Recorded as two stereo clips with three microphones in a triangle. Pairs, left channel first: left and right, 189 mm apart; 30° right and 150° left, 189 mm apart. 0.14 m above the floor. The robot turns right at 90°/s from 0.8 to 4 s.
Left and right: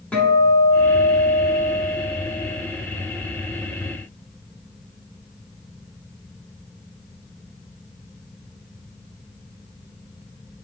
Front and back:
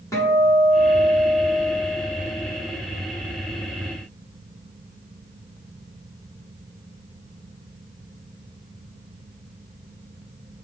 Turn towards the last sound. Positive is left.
turn(degrees=-55)